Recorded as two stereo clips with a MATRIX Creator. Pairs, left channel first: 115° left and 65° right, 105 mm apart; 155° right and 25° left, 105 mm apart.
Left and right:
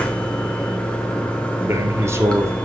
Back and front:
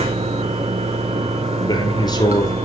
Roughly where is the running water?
Ahead left.